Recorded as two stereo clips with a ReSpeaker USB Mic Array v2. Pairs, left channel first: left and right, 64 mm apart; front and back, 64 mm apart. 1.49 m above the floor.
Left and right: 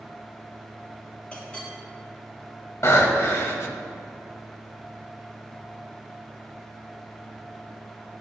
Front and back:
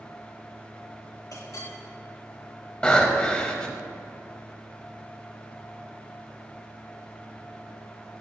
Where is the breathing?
70° left, 2.0 m.